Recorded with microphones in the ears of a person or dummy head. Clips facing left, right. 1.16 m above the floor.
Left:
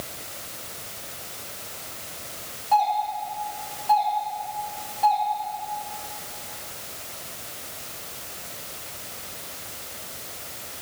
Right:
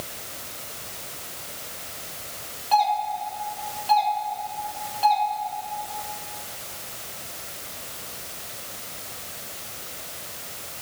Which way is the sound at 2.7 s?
40° right (ahead or behind).